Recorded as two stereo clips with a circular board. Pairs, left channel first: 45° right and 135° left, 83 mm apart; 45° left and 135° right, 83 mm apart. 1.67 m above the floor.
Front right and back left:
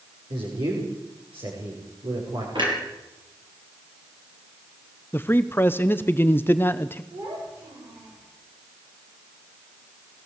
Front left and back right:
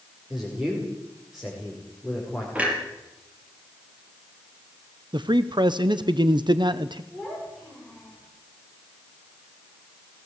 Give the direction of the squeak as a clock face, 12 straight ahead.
No squeak in this recording.